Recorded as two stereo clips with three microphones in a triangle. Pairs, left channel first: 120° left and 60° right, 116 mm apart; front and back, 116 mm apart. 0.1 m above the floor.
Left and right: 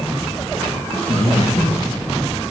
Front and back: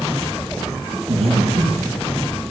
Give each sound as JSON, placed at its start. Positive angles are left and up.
{"t": 1.1, "sound": "breathing", "azimuth_deg": -160, "distance_m": 3.0}